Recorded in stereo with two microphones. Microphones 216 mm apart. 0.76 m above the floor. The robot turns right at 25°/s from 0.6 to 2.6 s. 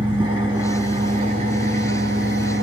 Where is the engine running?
160° right, 6.5 m; by 2.6 s 110° right, 6.5 m.